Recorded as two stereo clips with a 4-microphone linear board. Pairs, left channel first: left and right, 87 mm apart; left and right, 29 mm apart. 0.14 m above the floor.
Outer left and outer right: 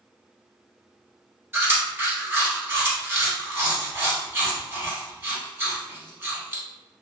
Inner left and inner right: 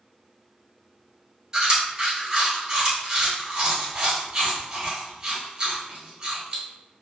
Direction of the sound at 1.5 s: 25° right (ahead or behind).